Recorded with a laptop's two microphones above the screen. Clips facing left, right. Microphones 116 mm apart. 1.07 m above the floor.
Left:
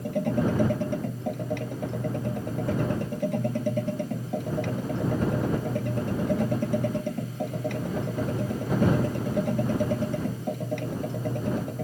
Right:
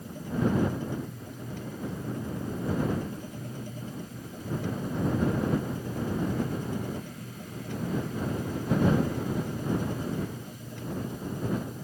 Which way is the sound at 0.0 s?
70° left (ahead or behind).